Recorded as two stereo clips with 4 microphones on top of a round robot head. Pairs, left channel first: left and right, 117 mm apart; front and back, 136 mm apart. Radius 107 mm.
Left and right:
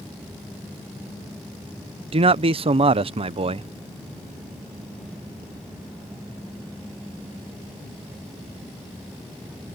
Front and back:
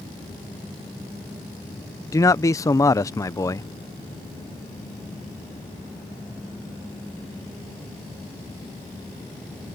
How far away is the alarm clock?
No alarm clock in this recording.